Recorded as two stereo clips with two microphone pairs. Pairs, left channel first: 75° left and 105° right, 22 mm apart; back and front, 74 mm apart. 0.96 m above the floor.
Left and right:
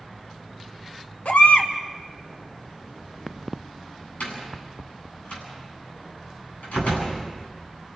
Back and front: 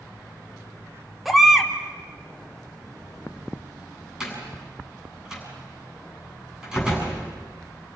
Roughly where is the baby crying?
Left.